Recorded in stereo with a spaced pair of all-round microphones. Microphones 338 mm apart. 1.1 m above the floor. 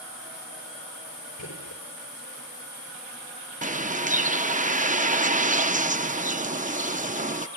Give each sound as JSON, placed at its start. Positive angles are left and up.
{"t": 1.4, "sound": "a gunshot", "side_deg": 70, "distance_m": 4.0}
{"t": 3.6, "sound": "a bird", "side_deg": -25, "distance_m": 0.6}